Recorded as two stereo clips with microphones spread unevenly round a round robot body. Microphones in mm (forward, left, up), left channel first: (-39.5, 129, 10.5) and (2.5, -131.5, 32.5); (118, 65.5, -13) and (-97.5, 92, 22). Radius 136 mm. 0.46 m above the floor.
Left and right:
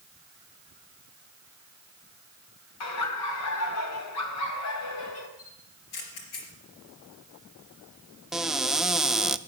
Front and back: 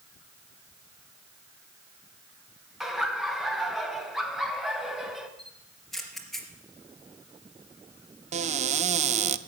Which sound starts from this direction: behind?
A cupboard door, at 8.3 s.